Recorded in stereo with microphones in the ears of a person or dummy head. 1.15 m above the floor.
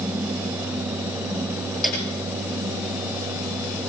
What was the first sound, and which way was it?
A piano, centre (ahead or behind).